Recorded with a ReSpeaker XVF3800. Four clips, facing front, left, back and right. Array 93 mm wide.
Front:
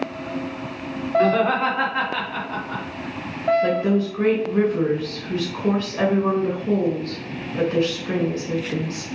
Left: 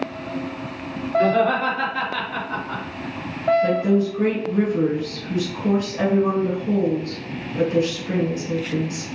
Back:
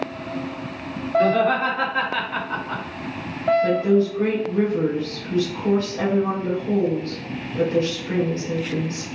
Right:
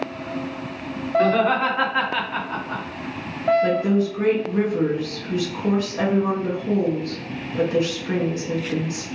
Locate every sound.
1.2 s laughter: 50° right, 1.9 m; by 2.8 s 170° right, 1.4 m
3.6 s a woman speaking: 25° right, 1.8 m